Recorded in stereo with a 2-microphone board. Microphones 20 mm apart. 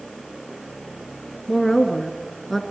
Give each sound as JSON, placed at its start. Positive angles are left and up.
{"t": 1.5, "sound": "a woman speaking", "side_deg": 15, "distance_m": 2.5}